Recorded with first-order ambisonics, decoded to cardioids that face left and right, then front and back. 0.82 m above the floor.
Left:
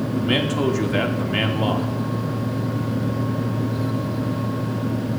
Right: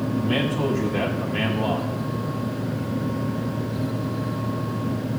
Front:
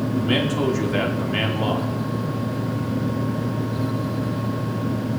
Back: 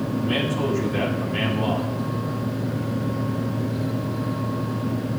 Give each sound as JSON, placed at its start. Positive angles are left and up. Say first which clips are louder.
{"t": 0.1, "sound": "a man speaking", "louder": "left 3 dB, front 2 dB", "azimuth_deg": 60, "distance_m": 1.6}